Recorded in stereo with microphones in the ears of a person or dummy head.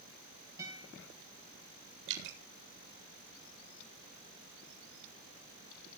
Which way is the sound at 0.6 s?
15° right (ahead or behind).